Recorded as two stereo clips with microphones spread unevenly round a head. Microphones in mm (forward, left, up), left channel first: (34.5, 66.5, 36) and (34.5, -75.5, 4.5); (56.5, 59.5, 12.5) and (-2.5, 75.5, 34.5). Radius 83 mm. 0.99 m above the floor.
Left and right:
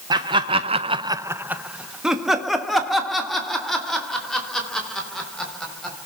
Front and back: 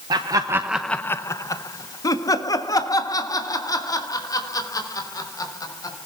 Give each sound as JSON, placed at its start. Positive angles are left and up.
{"t": 0.1, "sound": "laughter", "azimuth_deg": -150, "distance_m": 0.9}